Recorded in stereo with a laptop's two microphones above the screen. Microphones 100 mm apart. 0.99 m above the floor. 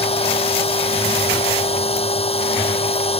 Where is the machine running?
80° left.